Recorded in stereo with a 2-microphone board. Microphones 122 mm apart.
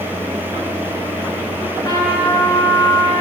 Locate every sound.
1.6 s a trumpet: 30° left (ahead or behind), 2.5 m